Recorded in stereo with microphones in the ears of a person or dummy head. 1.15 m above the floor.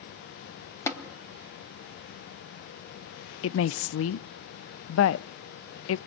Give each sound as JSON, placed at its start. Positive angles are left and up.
{"t": 0.9, "sound": "tapping", "side_deg": 15, "distance_m": 2.5}
{"t": 3.4, "sound": "a woman speaking", "side_deg": 85, "distance_m": 0.6}